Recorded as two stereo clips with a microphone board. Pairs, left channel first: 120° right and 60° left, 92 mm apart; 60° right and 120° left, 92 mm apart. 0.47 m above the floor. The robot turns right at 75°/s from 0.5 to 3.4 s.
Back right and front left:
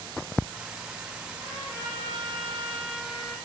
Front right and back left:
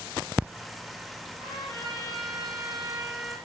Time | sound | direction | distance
1.3 | a trumpet | 75° left | 5 m